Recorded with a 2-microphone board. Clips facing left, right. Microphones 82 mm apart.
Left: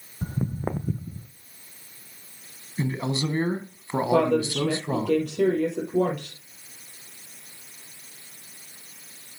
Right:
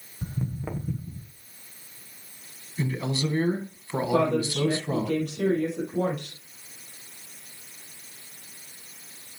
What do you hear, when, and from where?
0.2 s footsteps: 40° left (ahead or behind), 0.7 m; by 1.3 s 45° left (ahead or behind), 1.6 m
2.8 s a man speaking: 30° left (ahead or behind), 1.4 m
4.1 s a woman speaking: 80° left, 4.5 m